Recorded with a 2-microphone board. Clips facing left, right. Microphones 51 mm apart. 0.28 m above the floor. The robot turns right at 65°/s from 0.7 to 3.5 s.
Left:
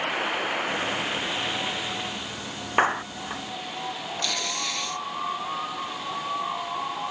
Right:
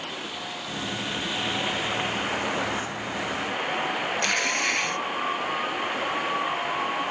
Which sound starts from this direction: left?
A clap, at 2.8 s.